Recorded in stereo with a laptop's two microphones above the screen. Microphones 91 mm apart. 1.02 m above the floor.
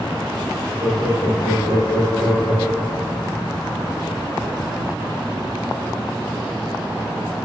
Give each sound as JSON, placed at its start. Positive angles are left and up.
{"t": 0.8, "sound": "laughter", "side_deg": -15, "distance_m": 1.0}